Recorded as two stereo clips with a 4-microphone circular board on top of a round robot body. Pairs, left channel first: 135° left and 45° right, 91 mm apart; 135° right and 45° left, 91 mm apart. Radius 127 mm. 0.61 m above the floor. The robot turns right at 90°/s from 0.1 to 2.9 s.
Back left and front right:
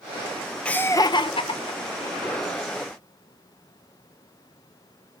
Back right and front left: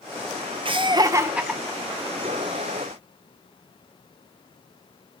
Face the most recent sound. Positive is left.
turn(degrees=-100)